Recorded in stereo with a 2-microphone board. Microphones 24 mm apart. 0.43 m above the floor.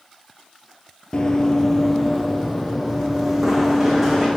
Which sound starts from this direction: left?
Running footsteps, at 1.1 s.